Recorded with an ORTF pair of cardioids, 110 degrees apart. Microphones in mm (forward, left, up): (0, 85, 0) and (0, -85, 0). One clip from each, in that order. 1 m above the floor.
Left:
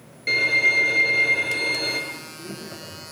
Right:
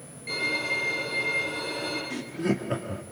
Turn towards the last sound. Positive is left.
turn(degrees=-65)